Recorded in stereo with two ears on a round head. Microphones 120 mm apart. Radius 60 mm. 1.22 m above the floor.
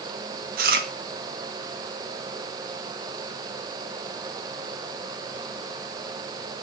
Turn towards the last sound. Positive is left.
turn(degrees=-70)  # may be behind; listen again after turning